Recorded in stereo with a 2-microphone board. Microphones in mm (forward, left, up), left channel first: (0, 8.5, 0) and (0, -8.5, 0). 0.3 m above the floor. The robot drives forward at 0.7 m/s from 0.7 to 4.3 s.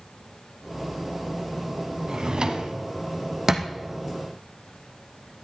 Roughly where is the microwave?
I don't hear a microwave.